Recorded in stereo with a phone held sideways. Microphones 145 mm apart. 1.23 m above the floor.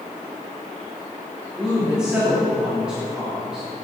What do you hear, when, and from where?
1.6 s a woman speaking: 5° right (ahead or behind), 2.5 m